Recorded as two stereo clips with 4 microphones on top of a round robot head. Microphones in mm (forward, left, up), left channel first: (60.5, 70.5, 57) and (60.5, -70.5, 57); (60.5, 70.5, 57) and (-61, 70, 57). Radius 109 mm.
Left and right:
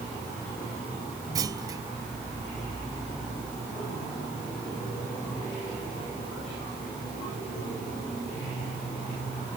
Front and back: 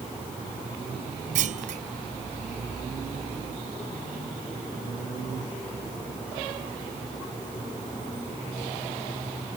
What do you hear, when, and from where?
1.4 s a clunk: 160° right